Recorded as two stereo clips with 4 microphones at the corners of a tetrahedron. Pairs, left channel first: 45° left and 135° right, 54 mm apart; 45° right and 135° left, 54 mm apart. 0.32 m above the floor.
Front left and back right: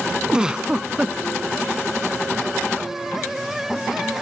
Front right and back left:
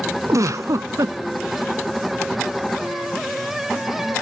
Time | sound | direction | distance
0.3 | a giggle | 150° left | 0.6 m